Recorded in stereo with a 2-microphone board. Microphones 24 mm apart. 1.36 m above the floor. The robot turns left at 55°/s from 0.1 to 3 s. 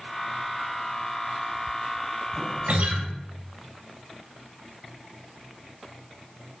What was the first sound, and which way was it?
A guitar, 75° right (ahead or behind).